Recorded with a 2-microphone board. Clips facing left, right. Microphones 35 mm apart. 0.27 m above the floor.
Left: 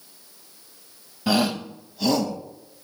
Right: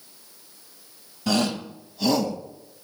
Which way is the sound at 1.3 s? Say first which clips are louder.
Left 2 dB; 15° left (ahead or behind).